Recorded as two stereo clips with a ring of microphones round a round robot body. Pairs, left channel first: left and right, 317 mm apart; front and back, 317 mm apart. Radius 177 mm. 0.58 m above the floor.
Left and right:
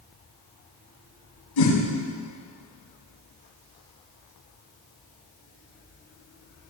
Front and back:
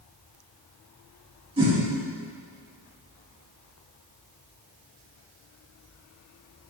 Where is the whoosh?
105° left, 6.5 m.